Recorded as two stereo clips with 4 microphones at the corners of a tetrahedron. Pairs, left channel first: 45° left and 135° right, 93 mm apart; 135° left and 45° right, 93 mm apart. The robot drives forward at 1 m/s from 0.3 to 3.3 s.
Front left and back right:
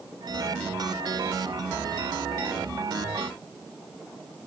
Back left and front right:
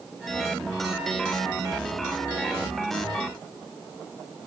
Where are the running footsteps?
No running footsteps in this recording.